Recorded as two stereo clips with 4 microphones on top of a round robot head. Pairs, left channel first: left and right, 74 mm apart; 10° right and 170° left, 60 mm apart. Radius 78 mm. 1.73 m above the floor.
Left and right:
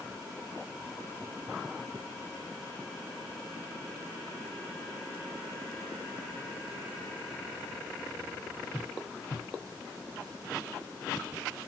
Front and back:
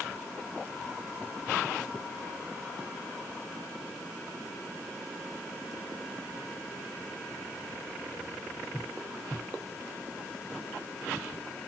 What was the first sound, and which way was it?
Only background noise.